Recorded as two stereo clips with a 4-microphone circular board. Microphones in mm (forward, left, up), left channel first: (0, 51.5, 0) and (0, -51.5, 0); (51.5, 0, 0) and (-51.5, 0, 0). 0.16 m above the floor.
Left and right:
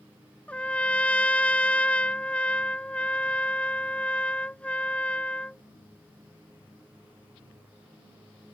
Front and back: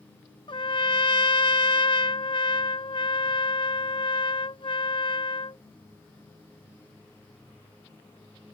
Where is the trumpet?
15° left.